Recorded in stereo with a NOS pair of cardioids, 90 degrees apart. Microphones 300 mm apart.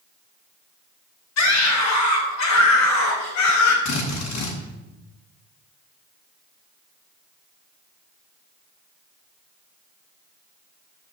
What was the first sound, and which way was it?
A scream, 65° left.